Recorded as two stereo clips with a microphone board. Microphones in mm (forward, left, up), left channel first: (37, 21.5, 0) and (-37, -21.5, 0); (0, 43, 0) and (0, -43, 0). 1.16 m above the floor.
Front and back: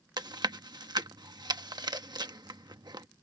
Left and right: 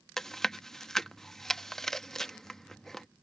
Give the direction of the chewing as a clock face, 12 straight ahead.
6 o'clock.